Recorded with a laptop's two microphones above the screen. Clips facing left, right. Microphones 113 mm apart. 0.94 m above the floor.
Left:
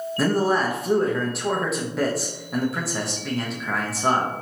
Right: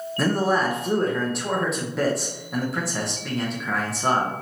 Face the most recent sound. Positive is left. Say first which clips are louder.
# left 1 dB
turn(degrees=0)  # may be behind; listen again after turning